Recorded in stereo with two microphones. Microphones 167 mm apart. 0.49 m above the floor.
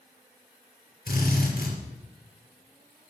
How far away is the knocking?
No knocking in this recording.